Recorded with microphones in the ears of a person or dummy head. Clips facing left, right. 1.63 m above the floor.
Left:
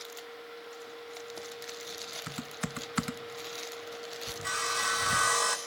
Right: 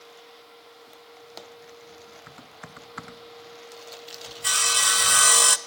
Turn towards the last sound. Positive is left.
turn(degrees=-40)  # may be behind; listen again after turning